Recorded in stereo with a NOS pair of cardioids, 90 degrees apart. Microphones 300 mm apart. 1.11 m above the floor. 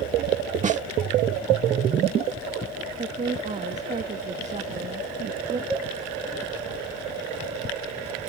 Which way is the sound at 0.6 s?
25° right.